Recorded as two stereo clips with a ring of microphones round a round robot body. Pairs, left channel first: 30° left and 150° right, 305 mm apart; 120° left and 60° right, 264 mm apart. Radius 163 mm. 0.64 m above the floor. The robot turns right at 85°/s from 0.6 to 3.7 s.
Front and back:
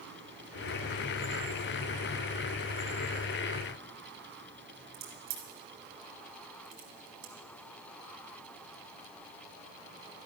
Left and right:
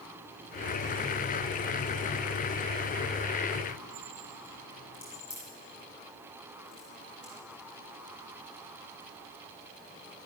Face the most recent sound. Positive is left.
turn(degrees=-145)